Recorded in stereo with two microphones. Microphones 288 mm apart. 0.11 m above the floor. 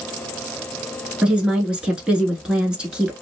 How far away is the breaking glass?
I don't hear breaking glass.